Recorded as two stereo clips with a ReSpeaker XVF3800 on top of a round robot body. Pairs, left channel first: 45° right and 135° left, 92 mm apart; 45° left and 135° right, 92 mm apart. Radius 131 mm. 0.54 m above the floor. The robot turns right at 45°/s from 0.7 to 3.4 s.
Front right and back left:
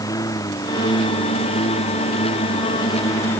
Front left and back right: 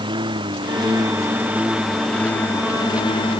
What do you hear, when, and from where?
0.0 s a lawn mower: 100° right; by 3.4 s 25° left